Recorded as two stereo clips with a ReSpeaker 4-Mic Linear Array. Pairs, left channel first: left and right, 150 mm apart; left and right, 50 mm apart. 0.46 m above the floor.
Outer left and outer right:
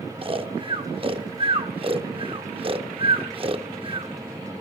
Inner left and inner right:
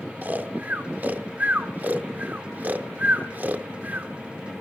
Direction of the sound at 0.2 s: 35° right (ahead or behind).